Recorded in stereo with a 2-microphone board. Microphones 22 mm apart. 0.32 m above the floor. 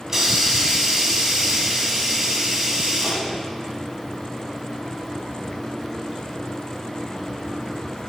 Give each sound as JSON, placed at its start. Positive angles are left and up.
{"t": 0.1, "sound": "a hiss", "side_deg": -20, "distance_m": 2.0}